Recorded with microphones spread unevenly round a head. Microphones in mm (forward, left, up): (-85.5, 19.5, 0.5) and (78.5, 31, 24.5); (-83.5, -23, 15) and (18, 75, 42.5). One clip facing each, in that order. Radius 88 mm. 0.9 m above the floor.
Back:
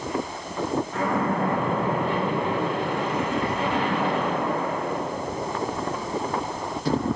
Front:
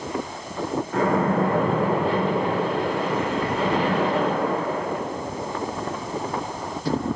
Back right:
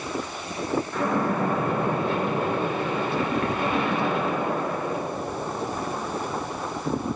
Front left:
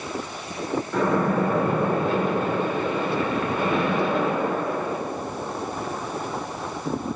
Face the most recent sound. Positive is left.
turn(degrees=25)